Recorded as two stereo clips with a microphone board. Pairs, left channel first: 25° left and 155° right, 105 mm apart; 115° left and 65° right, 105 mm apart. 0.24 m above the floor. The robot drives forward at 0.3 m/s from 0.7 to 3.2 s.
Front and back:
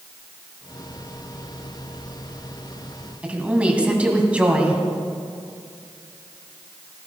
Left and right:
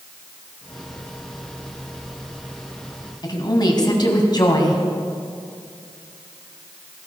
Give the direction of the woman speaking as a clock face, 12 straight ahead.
8 o'clock.